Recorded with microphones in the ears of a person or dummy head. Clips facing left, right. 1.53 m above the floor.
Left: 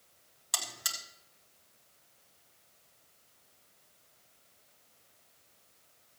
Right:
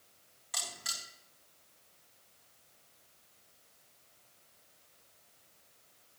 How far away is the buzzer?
About 3 m.